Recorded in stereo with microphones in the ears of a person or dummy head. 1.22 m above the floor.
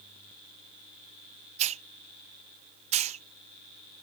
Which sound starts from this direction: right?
A hiss, at 1.6 s.